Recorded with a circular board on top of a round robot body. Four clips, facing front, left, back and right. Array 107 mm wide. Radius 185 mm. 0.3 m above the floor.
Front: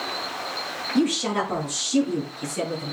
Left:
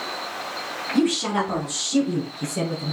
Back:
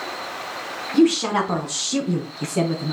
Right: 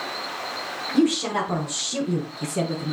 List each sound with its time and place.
0.9 s a woman speaking: 170° left, 4.5 m; by 2.9 s 165° right, 4.5 m